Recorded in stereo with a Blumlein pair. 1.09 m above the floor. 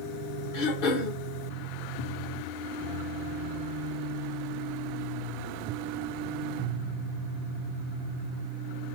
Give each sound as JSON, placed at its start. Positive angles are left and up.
{"t": 0.5, "sound": "throat clearing", "azimuth_deg": 50, "distance_m": 1.0}